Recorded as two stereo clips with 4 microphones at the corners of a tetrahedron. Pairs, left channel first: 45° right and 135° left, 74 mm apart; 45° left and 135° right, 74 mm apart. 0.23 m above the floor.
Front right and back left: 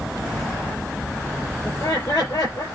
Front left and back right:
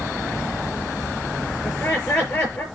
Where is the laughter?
15° right, 6 m.